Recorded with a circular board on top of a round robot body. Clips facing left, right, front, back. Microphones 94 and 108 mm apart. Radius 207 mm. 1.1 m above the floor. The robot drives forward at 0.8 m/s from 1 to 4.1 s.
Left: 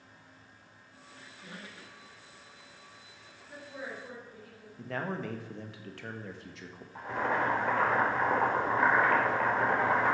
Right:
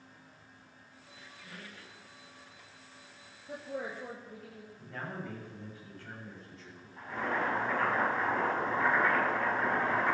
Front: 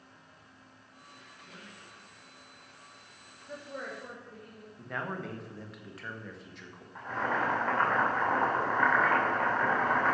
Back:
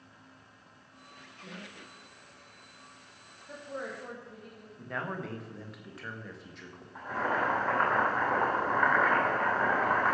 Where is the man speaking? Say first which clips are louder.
Left 6 dB, even; 90° left, 1.9 m.